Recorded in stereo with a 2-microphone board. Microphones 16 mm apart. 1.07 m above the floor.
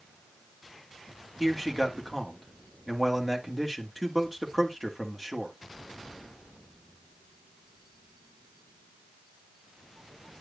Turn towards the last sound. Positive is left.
turn(degrees=5)  # may be behind; listen again after turning